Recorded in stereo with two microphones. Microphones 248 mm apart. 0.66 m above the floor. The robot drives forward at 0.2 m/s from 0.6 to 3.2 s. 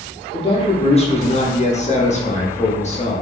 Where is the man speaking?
25° left (ahead or behind), 0.6 m.